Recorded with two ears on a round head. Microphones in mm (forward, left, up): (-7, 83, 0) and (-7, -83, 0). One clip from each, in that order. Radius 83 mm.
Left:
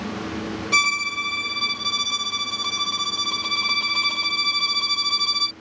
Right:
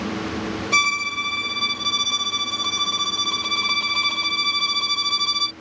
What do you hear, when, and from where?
0.7 s a violin: 5° left (ahead or behind)